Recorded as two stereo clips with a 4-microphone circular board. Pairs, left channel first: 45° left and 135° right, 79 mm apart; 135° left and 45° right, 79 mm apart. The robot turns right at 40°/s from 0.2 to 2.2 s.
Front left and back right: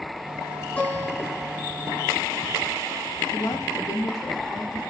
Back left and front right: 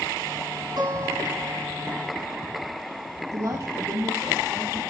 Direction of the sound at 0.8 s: 25° right.